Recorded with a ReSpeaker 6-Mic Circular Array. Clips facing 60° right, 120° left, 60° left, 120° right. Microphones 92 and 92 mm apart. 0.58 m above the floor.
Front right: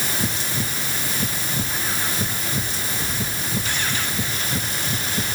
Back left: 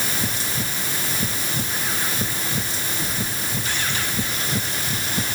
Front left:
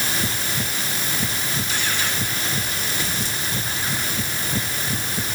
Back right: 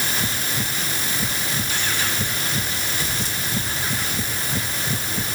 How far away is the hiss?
I don't hear a hiss.